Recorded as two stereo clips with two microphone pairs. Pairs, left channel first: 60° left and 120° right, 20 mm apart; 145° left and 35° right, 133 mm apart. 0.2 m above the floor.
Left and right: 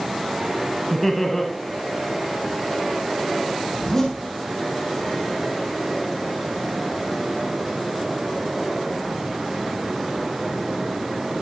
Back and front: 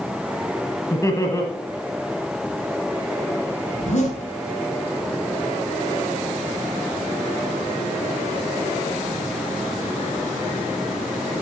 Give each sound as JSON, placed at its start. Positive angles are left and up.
{"t": 0.9, "sound": "laughter", "azimuth_deg": 120, "distance_m": 1.0}
{"t": 3.7, "sound": "a zipper", "azimuth_deg": 120, "distance_m": 4.5}